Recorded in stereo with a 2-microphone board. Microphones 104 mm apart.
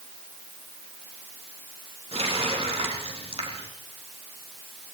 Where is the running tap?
70° right (ahead or behind), 5.5 m.